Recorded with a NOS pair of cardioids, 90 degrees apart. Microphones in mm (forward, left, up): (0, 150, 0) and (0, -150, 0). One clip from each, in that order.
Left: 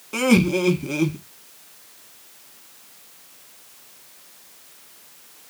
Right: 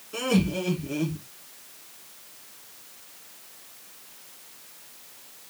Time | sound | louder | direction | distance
0.1 | laughter | left 7 dB | 65° left | 1.3 m